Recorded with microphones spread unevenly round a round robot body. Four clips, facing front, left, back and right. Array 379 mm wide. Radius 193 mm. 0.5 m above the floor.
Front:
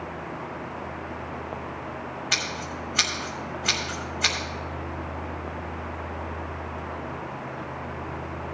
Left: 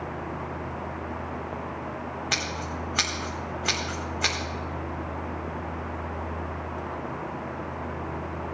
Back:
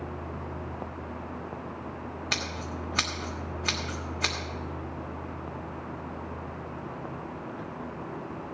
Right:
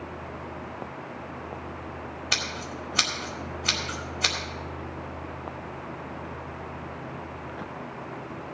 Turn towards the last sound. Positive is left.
turn(degrees=125)